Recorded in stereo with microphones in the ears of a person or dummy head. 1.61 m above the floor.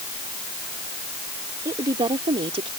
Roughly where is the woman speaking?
Right.